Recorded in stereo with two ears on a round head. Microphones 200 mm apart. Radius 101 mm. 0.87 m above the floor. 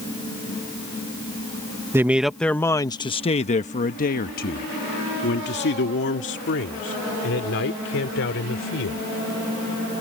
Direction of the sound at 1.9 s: 10° right (ahead or behind).